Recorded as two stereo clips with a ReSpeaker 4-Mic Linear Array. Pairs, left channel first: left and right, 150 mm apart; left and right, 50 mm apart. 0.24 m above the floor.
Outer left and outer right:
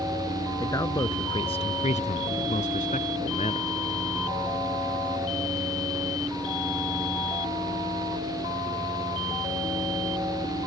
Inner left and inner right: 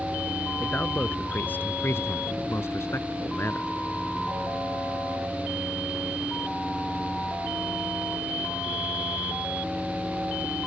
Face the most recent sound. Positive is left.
turn(degrees=45)  # may be behind; listen again after turning